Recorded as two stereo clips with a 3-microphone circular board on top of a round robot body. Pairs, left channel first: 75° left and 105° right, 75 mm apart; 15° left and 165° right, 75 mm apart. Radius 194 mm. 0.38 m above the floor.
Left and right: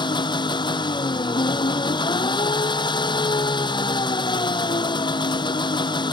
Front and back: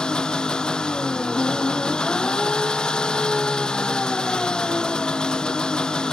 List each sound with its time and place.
0.0 s an engine running: 95° left